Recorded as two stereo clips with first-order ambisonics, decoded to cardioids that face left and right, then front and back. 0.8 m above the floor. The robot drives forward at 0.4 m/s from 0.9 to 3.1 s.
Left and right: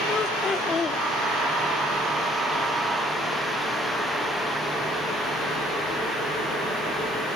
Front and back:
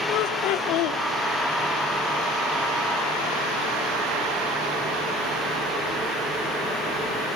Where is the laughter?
20° left, 1.3 m.